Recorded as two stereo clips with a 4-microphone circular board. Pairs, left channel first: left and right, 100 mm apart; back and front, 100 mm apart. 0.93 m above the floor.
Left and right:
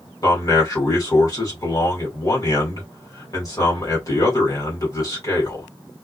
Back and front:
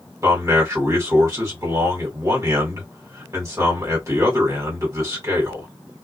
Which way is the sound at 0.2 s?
45° left.